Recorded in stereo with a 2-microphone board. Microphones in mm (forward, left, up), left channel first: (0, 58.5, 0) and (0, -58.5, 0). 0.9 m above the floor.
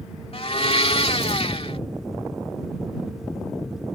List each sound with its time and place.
0.3 s a blender: 55° left (ahead or behind)